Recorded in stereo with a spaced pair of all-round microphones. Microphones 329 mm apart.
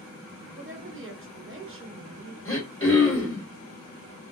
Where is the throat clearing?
40° left (ahead or behind), 1.5 m.